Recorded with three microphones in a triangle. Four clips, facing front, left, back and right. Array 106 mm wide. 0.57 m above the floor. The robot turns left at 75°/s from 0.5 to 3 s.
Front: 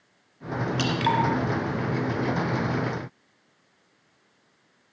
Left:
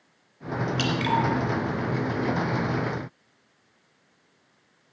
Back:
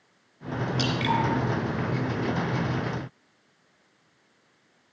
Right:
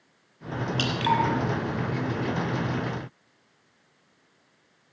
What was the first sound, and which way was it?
Dripping, straight ahead.